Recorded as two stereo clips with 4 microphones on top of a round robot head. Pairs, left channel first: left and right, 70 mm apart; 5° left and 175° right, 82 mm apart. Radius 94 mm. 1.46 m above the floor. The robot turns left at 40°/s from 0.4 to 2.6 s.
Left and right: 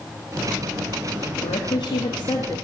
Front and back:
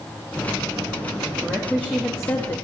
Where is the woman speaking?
100° left, 2.5 m; by 2.5 s 55° left, 2.5 m.